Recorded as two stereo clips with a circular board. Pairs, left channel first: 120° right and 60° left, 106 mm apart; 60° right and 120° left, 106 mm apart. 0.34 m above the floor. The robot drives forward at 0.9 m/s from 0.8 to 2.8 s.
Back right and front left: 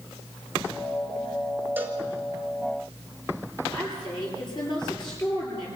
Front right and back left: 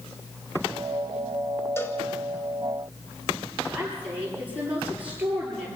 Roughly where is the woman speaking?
Behind.